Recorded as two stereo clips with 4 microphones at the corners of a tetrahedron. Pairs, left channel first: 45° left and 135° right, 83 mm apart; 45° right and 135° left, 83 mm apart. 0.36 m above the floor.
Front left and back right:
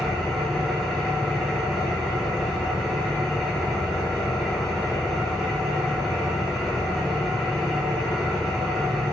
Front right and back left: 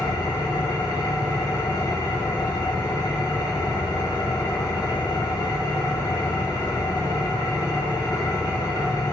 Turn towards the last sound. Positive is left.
turn(degrees=-40)